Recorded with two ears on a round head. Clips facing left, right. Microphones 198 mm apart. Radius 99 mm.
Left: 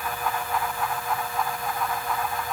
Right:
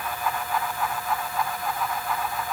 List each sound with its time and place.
Only background noise.